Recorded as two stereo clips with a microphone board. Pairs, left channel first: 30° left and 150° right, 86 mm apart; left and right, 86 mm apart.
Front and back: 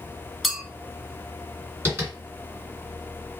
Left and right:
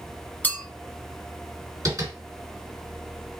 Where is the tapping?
105° right, 2 m.